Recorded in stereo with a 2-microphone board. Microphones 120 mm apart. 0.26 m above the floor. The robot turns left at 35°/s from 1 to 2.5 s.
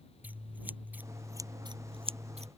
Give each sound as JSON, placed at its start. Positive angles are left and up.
{"t": 0.2, "sound": "scissors", "side_deg": -15}